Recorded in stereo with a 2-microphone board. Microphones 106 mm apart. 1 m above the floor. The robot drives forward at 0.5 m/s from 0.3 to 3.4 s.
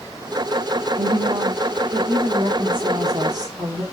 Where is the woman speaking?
70° right (ahead or behind), 1.5 m; by 3.8 s 40° right (ahead or behind), 2 m.